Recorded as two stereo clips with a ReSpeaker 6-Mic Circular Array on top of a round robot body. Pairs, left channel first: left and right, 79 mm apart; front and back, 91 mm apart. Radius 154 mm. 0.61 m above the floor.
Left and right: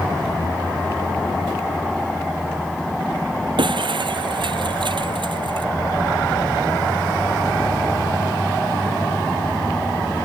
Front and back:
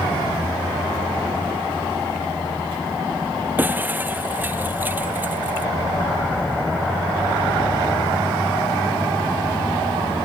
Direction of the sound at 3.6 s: 110° right.